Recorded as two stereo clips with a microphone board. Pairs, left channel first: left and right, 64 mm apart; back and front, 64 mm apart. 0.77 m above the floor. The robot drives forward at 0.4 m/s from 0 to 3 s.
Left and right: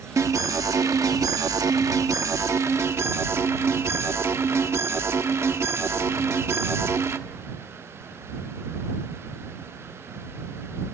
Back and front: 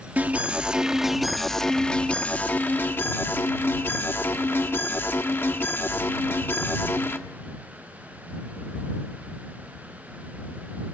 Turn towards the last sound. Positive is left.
turn(degrees=-130)